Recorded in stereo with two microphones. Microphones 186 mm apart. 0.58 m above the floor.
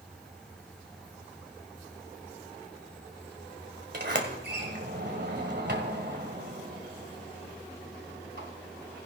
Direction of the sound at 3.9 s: 65° right (ahead or behind).